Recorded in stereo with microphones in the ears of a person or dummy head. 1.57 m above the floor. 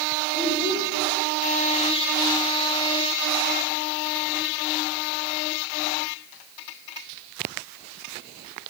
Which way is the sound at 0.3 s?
Centre (ahead or behind).